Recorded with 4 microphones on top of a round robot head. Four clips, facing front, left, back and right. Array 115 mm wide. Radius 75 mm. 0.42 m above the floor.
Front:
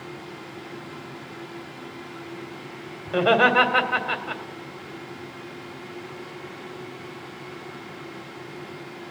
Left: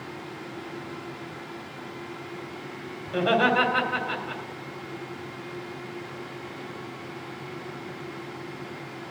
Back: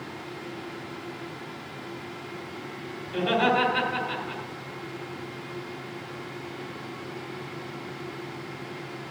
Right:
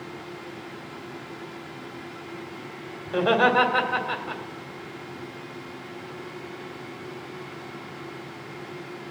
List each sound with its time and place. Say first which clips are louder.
3.1 s laughter: right 2 dB, front 5 dB; 30° right, 2 m